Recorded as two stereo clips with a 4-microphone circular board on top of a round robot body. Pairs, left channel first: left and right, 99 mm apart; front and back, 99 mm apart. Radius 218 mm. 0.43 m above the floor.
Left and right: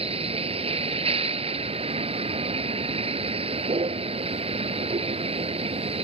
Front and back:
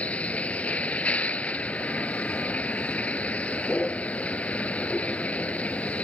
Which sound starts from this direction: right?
A vehicle, at 0.0 s.